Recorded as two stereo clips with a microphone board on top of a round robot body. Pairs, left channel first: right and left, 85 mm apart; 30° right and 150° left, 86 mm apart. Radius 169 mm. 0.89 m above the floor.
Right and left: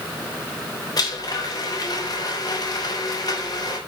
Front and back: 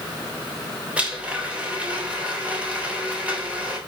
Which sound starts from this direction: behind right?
A blender, at 1.0 s.